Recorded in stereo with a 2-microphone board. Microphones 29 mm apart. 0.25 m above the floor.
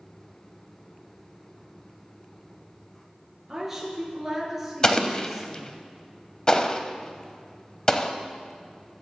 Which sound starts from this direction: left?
An explosion, at 4.8 s.